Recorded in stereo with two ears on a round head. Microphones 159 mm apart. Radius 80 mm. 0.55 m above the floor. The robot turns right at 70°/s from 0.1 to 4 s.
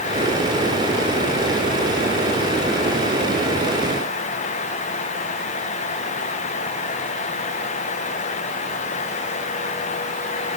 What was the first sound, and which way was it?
Only background noise.